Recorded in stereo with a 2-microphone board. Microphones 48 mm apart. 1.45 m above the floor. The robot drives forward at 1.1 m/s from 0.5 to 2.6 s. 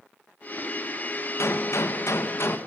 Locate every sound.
1.4 s a gunshot: 75° left (ahead or behind), 1.6 m; by 2.6 s 60° left (ahead or behind), 1.8 m